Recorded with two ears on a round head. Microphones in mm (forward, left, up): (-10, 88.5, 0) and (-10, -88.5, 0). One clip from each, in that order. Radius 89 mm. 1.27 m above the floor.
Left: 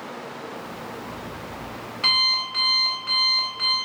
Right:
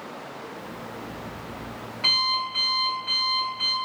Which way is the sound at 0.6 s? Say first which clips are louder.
Left 2 dB; 50° left (ahead or behind).